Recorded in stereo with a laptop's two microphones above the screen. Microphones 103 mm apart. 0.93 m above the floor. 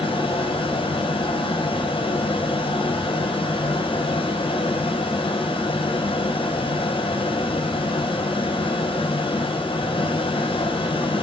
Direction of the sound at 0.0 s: 55° left (ahead or behind).